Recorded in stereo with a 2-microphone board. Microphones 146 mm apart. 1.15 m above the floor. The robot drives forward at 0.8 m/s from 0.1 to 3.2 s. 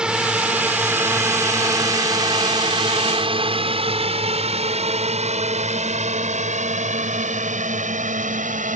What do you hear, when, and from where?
0.0 s a drone: 5° right (ahead or behind); by 8.8 s 60° right (ahead or behind)